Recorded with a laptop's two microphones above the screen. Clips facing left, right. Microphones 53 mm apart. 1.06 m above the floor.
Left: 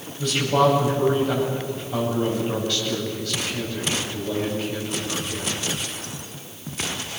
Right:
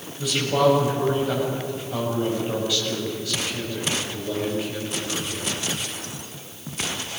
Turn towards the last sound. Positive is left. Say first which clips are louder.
# left 1 dB
turn(degrees=-5)  # may be behind; listen again after turning